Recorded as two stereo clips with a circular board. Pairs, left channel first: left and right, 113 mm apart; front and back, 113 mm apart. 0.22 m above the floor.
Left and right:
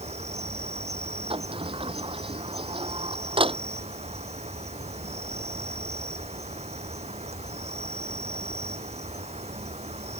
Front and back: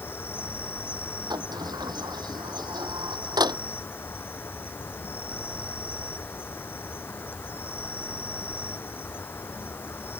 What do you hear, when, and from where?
0.0 s an insect: 70° right
1.3 s a sliding door: 125° right